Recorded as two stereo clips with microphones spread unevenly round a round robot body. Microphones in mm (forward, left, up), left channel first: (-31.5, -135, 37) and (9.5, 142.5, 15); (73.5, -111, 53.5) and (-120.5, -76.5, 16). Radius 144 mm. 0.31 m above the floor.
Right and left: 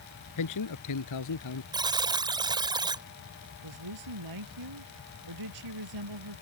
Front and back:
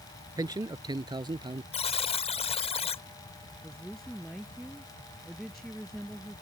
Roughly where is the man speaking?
Behind right.